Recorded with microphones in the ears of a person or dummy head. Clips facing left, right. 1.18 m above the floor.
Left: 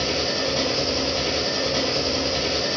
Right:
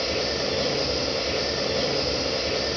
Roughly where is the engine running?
Left.